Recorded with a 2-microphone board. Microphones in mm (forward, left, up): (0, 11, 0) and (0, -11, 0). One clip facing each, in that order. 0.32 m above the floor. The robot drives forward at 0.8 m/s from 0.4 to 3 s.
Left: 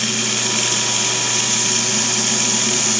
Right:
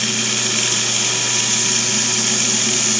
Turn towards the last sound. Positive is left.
turn(degrees=0)  # may be behind; listen again after turning